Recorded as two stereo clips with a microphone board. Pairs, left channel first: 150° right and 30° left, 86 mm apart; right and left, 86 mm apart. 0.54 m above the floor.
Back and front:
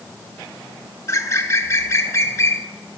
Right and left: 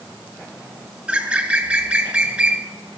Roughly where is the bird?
Behind.